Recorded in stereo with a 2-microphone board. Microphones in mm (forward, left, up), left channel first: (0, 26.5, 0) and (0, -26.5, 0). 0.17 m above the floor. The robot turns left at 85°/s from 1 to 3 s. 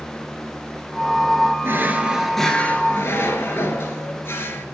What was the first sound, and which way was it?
A drawer, 125° right.